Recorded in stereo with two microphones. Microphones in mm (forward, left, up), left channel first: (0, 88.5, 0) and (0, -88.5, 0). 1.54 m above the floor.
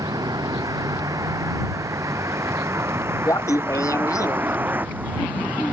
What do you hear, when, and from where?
0.0 s a vehicle: 20° right (ahead or behind); by 5.7 s 10° right (ahead or behind)
3.2 s laughter: 20° left (ahead or behind)